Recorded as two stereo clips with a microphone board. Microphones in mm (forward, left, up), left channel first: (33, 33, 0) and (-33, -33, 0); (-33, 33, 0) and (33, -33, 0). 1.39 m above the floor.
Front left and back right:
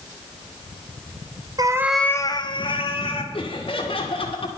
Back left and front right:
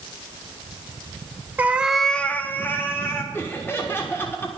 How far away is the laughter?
About 1.7 m.